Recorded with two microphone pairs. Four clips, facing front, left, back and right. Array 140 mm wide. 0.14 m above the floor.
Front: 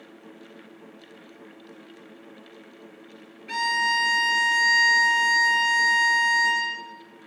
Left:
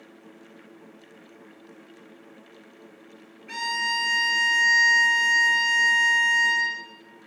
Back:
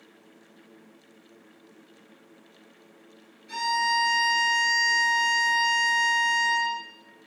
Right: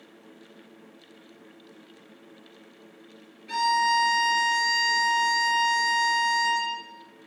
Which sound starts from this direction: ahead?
A violin, at 3.5 s.